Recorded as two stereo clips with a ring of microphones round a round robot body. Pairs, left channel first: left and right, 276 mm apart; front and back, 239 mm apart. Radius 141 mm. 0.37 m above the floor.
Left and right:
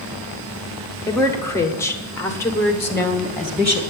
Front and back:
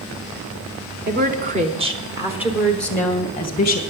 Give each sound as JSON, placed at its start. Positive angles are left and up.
{"t": 1.1, "sound": "a woman speaking", "azimuth_deg": 165, "distance_m": 1.7}